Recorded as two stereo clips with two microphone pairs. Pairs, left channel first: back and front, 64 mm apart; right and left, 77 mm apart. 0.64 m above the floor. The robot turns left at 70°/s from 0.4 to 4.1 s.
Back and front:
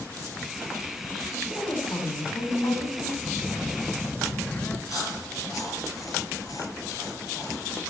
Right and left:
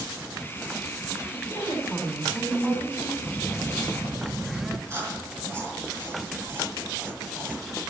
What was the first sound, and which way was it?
A woman speaking, 105° right.